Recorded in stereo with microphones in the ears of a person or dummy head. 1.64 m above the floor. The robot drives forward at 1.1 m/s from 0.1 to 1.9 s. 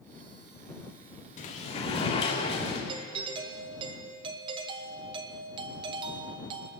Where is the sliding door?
45° left (ahead or behind), 1.9 m; by 2.8 s 35° left (ahead or behind), 2 m.